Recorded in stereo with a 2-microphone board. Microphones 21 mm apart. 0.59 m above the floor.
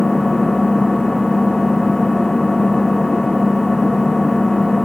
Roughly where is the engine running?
Left.